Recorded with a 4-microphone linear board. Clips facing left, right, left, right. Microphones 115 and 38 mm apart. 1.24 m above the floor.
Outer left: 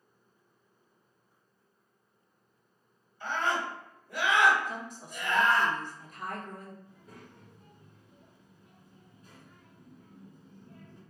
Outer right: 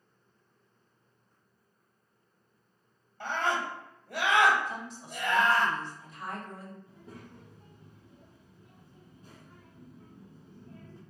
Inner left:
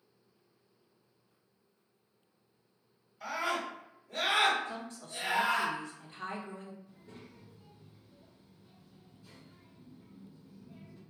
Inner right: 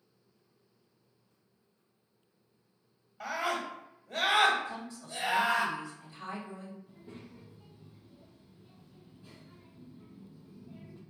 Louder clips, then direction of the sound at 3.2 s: Even, inner right 1 dB; 70° right (ahead or behind).